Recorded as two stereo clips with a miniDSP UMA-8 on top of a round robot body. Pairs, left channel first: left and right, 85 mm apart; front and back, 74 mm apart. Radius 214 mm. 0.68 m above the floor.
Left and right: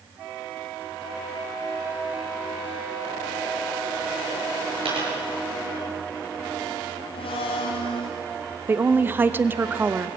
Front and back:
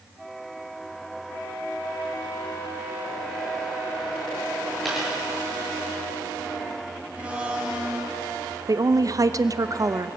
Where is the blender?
105° left, 0.7 m.